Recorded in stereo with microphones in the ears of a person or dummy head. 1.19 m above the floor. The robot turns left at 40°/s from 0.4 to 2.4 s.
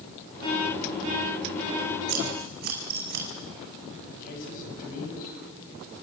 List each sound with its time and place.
2.1 s scissors: 60° right (ahead or behind), 5.5 m; by 3.2 s 45° right (ahead or behind), 5.5 m
4.1 s a man speaking: 45° left (ahead or behind), 7.5 m